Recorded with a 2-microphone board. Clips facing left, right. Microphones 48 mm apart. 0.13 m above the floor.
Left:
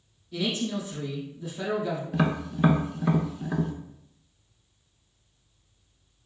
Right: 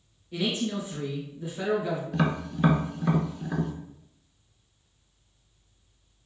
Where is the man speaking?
30° right (ahead or behind), 2 m.